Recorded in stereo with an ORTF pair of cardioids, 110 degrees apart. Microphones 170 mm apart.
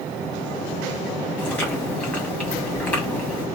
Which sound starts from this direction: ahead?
Chewing, at 1.4 s.